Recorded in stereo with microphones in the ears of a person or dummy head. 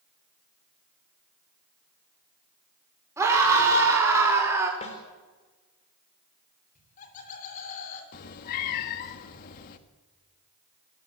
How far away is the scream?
About 4.5 m.